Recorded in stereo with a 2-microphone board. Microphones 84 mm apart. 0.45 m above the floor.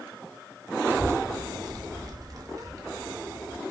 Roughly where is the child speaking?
Right.